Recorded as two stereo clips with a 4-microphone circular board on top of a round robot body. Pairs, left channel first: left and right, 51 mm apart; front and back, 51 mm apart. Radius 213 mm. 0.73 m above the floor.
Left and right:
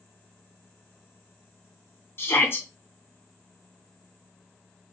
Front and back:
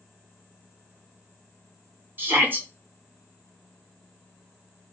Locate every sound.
2.2 s a shout: 130° left, 2.0 m